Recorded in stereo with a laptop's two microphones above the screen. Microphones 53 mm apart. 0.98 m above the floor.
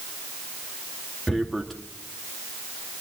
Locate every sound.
1.3 s tearing paper: 5° left (ahead or behind), 2 m